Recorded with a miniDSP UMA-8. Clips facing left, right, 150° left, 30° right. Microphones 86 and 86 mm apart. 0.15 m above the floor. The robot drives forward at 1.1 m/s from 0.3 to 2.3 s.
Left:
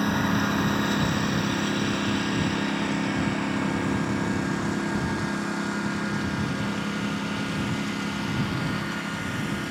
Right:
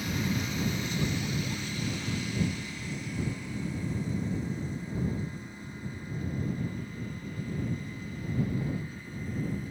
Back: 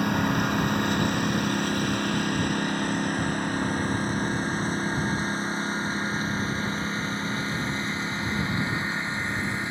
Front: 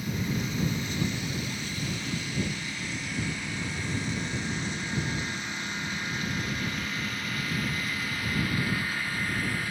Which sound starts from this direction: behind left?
A lawn mower, at 0.0 s.